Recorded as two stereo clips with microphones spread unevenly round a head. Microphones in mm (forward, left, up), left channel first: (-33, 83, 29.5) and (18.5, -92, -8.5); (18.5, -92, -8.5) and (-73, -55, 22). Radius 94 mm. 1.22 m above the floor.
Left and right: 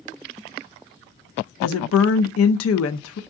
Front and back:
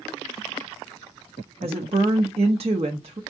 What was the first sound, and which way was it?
A woman speaking, 105° left.